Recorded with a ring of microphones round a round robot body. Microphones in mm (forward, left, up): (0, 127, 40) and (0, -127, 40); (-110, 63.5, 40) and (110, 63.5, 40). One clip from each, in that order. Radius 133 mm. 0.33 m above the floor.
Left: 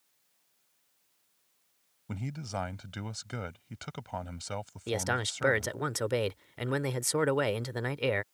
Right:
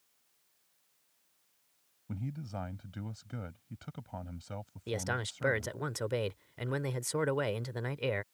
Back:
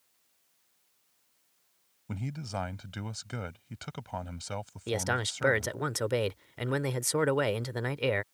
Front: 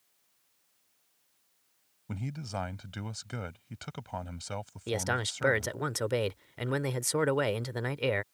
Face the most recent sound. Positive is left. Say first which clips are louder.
# left 4 dB, back 1 dB
turn(degrees=90)